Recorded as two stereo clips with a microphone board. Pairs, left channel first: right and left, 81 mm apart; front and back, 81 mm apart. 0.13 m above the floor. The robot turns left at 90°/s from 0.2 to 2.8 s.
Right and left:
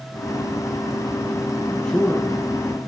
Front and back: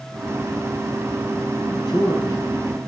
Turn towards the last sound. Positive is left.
turn(degrees=-90)